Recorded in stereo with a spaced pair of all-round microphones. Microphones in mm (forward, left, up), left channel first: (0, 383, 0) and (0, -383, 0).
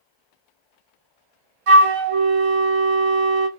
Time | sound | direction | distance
1.7 | a flute | 50° right (ahead or behind) | 0.6 m